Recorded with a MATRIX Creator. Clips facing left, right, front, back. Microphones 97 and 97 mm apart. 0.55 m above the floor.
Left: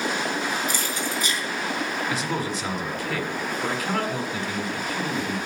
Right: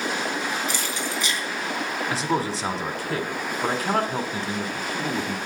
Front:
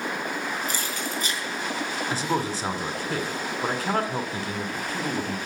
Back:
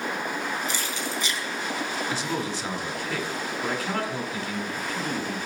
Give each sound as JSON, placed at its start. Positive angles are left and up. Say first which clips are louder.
{"t": 0.7, "sound": "keys jangling", "louder": "left 1 dB, even", "azimuth_deg": 45, "distance_m": 3.5}
{"t": 2.1, "sound": "a man speaking", "louder": "right 2 dB, front 2 dB", "azimuth_deg": -40, "distance_m": 1.5}